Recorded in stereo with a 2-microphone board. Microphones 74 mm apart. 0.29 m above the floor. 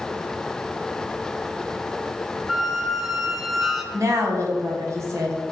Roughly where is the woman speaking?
Right.